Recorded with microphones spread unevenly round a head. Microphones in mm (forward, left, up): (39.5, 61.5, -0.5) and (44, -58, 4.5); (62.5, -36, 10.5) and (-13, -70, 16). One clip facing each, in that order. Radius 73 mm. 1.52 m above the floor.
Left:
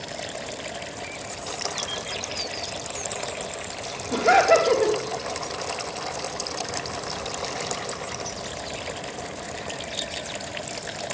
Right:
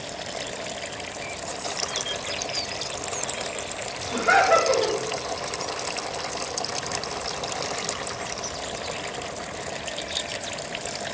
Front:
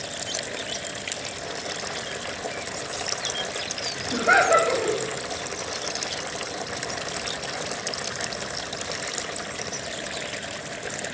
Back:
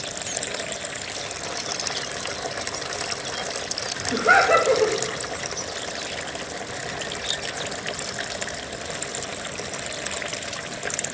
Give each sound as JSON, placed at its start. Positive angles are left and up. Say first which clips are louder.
{"t": 4.1, "sound": "laughter", "louder": "left 2 dB, back 1 dB", "azimuth_deg": 145, "distance_m": 2.5}